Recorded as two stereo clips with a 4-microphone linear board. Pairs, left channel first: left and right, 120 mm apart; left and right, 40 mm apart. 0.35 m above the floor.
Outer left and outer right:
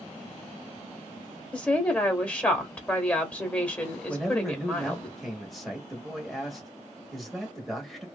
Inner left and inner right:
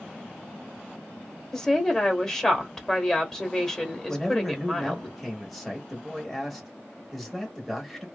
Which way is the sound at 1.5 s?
15° left (ahead or behind).